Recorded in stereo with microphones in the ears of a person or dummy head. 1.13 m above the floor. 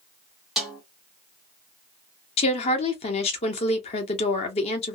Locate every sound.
0.6 s a snare drum: centre (ahead or behind), 1.2 m
2.4 s a woman speaking: 35° left (ahead or behind), 0.9 m